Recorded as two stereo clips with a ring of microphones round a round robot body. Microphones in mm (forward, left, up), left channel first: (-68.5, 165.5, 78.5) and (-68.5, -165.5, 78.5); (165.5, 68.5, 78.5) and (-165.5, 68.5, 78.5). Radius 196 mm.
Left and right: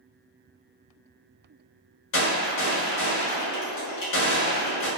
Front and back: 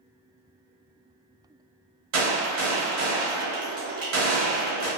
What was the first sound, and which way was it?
A gunshot, 135° left.